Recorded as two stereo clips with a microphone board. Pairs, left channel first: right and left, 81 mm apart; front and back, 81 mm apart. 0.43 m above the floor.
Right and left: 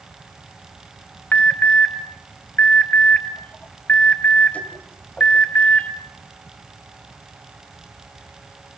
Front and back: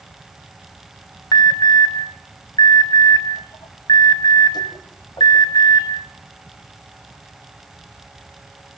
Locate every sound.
1.3 s an alarm: 20° right, 3 m